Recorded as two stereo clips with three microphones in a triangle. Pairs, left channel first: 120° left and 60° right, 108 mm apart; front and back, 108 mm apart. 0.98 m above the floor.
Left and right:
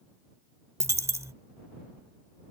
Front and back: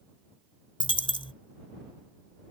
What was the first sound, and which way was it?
A dropped coin, 5° right.